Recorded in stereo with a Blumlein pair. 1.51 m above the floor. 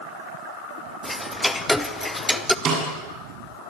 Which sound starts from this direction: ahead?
Ticking, at 1.0 s.